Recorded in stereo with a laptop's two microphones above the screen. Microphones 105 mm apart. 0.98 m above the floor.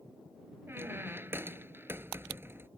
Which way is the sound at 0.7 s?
20° right (ahead or behind).